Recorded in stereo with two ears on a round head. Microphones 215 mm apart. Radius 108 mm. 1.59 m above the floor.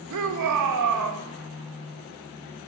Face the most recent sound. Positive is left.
turn(degrees=-85)